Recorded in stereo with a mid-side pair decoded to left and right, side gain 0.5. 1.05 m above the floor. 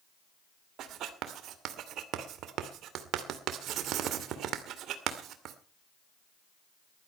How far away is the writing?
About 2 m.